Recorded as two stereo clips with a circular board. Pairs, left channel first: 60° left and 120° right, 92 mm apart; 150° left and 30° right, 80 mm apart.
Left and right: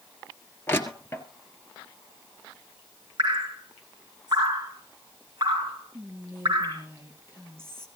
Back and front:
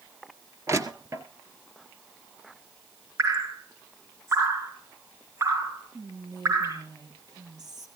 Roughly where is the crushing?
Ahead.